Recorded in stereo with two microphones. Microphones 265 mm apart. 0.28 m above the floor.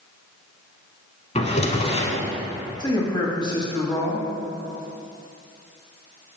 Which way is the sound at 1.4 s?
25° left (ahead or behind).